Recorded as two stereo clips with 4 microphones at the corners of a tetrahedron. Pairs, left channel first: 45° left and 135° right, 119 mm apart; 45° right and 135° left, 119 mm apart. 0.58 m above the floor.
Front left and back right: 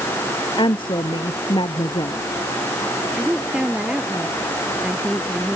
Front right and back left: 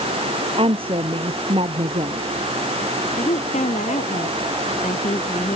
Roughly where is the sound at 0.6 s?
Left.